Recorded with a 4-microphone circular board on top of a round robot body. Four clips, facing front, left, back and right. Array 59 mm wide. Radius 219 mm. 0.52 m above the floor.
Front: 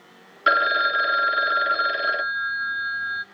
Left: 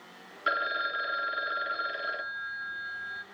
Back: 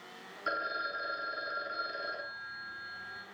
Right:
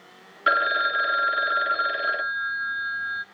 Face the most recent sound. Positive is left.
turn(degrees=-25)